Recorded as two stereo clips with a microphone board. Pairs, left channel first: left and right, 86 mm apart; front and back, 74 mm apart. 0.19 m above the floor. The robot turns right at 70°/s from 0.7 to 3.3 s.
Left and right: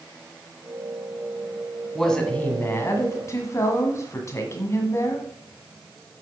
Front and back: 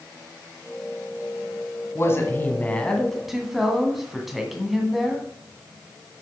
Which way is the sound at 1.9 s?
Straight ahead.